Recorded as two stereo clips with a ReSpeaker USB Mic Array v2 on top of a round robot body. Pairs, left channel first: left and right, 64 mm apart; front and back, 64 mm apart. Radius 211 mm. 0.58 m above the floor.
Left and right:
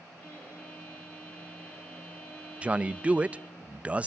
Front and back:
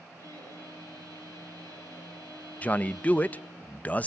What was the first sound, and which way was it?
A violin, 20° left.